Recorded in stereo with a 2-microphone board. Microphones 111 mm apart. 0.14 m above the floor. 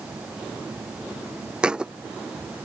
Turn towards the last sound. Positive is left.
turn(degrees=-10)  # may be behind; listen again after turning